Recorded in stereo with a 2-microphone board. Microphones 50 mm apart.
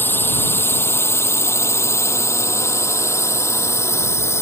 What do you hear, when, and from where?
0.0 s a drone: 45° left (ahead or behind); by 4.4 s 65° left (ahead or behind)